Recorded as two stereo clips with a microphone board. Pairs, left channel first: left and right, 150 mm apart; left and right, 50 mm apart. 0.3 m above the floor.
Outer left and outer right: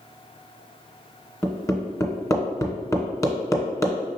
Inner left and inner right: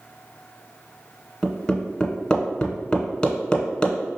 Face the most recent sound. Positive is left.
turn(degrees=20)  # may be behind; listen again after turning